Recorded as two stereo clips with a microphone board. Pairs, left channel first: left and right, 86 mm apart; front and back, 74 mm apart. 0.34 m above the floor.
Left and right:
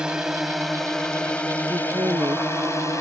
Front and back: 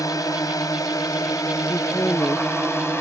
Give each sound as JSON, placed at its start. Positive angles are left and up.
{"t": 0.0, "sound": "a drone", "azimuth_deg": -10}
{"t": 1.7, "sound": "a woman speaking", "azimuth_deg": -50}